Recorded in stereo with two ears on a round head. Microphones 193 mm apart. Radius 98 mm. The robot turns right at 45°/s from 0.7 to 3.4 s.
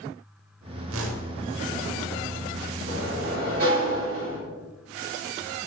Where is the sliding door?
65° right (ahead or behind), 2.5 m; by 4.4 s 45° right (ahead or behind), 2.5 m.